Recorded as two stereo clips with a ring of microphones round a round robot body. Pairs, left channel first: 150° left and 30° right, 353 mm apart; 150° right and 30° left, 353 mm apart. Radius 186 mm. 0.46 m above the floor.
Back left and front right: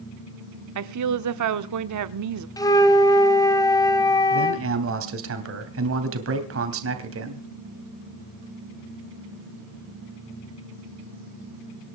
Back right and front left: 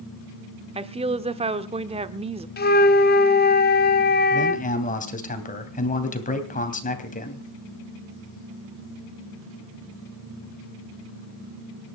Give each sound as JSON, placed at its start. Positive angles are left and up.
{"t": 0.8, "sound": "a woman speaking", "azimuth_deg": -40, "distance_m": 1.1}
{"t": 2.6, "sound": "a flute", "azimuth_deg": -145, "distance_m": 1.3}
{"t": 4.3, "sound": "a man speaking", "azimuth_deg": -80, "distance_m": 3.0}